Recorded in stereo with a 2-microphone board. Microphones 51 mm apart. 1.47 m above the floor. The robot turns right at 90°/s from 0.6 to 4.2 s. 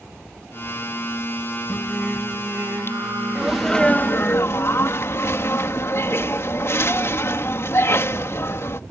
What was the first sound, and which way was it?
Singing, 150° left.